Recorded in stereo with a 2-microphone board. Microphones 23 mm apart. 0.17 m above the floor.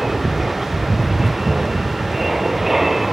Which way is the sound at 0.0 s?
10° right (ahead or behind).